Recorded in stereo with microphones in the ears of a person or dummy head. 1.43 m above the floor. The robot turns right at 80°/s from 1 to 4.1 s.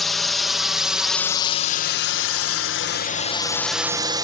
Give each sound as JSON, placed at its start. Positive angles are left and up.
{"t": 0.0, "sound": "a drone", "side_deg": 0}